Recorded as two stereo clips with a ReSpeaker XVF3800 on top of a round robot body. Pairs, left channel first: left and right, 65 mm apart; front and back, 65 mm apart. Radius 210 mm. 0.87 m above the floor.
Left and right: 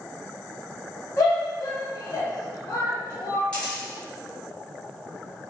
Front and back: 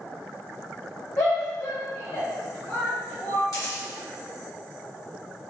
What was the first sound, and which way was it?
A shout, 40° left.